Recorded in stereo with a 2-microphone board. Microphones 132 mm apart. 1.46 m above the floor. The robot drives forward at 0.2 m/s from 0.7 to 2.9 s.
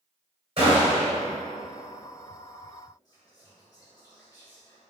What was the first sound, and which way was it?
A gunshot, 45° right (ahead or behind).